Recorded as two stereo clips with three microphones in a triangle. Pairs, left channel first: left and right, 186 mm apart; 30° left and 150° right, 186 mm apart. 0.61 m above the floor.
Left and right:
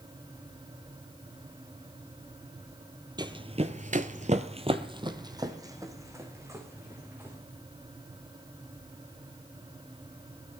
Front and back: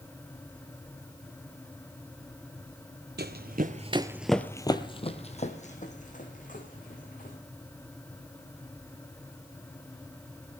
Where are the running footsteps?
155° right, 1.1 m; by 7.4 s 15° right, 3.5 m.